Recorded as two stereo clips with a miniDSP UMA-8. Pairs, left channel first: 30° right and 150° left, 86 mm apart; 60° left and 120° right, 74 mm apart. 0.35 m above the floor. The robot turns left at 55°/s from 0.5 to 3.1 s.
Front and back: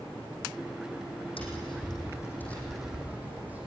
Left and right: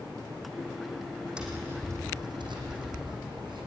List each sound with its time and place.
1.4 s tapping: 40° right, 6 m; by 3.7 s 135° right, 6 m